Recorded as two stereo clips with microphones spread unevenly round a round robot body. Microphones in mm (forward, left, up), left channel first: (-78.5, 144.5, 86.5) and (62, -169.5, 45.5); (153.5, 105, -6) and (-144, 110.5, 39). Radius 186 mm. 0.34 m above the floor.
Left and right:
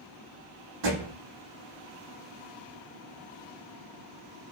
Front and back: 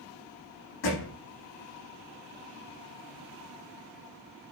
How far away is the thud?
About 8 m.